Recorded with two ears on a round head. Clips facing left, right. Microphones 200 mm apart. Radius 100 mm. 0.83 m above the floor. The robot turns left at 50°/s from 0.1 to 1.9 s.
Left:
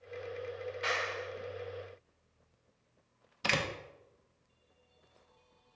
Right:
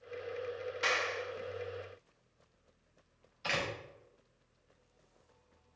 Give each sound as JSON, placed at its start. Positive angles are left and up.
{"t": 0.8, "sound": "a clap", "side_deg": -60, "distance_m": 1.3}
{"t": 3.4, "sound": "a door slam", "side_deg": 60, "distance_m": 0.9}